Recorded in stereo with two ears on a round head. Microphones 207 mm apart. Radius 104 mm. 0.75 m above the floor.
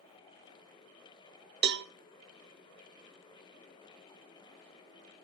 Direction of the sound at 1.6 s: 50° right (ahead or behind).